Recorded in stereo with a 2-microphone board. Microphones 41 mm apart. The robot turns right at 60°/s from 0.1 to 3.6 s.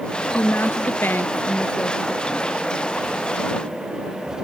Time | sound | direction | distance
0.3 | a woman speaking | 75° left | ?